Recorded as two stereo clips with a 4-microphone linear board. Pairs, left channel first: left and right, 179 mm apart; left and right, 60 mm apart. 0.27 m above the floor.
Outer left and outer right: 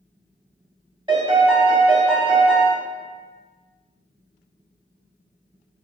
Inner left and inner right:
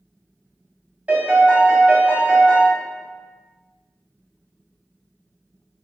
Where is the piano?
25° right (ahead or behind), 0.6 m.